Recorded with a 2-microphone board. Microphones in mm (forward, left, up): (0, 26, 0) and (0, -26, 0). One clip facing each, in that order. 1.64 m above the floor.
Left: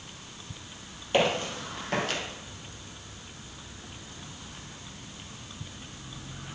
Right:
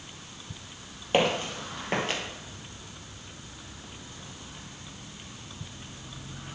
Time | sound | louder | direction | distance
1.1 | footsteps | even | 30° right (ahead or behind) | 2.5 m